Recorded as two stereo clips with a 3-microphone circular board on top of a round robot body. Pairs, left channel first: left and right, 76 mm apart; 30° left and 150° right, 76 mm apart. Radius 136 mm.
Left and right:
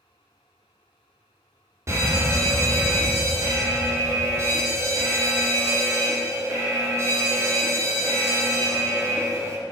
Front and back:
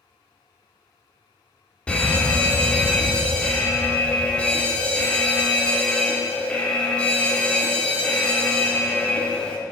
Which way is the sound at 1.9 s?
45° right.